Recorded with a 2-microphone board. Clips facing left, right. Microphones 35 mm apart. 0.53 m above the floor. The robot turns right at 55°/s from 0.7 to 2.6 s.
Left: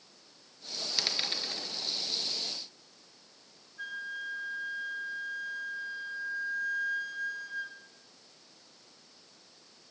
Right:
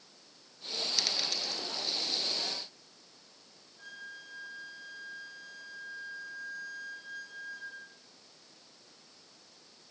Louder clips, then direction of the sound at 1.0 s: Left 3 dB; 15° left (ahead or behind).